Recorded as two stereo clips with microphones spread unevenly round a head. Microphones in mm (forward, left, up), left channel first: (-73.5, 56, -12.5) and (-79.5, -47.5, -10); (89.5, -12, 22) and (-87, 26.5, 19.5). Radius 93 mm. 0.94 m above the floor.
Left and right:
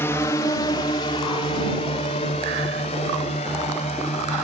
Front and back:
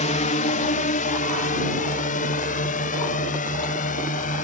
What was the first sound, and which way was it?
A drone, 25° left.